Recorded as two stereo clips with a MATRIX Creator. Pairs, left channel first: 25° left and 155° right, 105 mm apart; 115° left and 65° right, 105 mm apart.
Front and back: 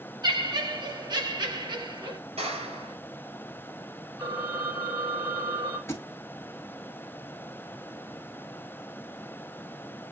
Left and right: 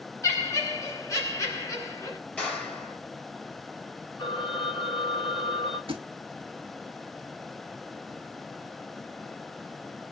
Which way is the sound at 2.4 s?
170° right.